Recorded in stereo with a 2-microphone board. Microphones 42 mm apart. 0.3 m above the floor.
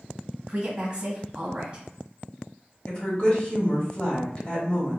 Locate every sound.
0.5 s a woman speaking: 25° right (ahead or behind), 1.7 m
2.9 s a woman speaking: 30° left (ahead or behind), 1.0 m